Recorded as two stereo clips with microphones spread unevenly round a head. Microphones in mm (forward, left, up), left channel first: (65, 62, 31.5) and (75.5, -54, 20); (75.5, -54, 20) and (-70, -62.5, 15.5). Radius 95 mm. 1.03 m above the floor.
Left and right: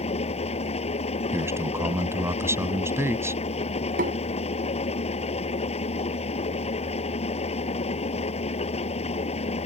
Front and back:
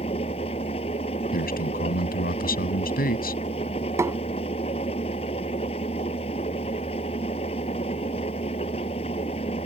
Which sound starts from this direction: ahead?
A man speaking, at 1.3 s.